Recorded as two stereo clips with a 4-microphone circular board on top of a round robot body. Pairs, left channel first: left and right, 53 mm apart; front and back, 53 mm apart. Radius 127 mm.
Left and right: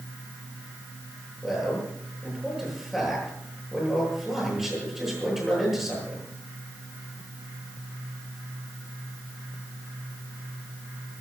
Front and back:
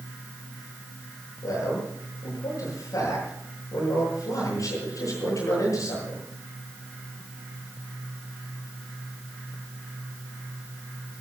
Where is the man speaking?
5° right, 9 m.